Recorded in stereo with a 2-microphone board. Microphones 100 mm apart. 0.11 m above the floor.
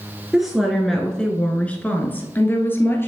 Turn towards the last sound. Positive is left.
turn(degrees=20)  # may be behind; listen again after turning